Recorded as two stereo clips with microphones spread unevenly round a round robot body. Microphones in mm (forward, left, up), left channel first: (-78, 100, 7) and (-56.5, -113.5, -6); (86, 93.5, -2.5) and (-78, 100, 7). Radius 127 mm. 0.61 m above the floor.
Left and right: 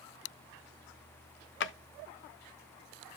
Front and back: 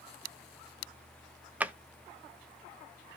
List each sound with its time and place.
1.6 s a drawer: 95° left, 0.5 m